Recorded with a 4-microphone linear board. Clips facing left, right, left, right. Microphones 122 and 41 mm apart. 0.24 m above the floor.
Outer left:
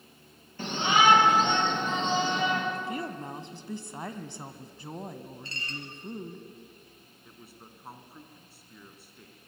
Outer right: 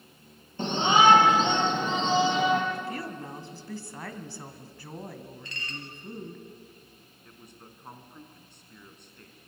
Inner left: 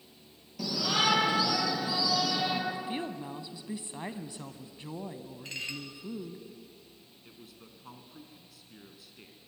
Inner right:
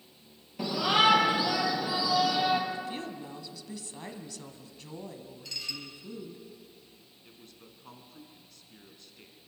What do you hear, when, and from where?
0.6 s a shout: 25° right (ahead or behind), 4.5 m; by 2.6 s 5° right (ahead or behind), 5 m
2.7 s a woman speaking: 20° left (ahead or behind), 1.6 m
5.5 s dishes clattering: 35° left (ahead or behind), 2.5 m
7.2 s a man speaking: 5° left (ahead or behind), 2.5 m